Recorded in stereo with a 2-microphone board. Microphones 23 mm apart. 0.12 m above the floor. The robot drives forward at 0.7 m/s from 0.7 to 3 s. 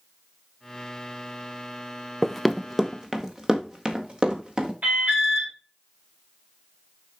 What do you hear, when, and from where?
2.2 s running footsteps: 10° left (ahead or behind), 0.5 m; by 4.7 s 40° right (ahead or behind), 2.5 m
4.8 s an alarm: 70° right (ahead or behind), 5 m